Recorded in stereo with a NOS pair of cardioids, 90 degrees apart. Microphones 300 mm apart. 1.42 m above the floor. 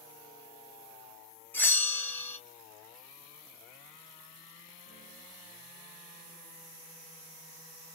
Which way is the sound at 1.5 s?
5° left.